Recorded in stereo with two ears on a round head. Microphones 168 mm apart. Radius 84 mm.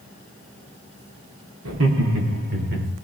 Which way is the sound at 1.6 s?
75° right (ahead or behind).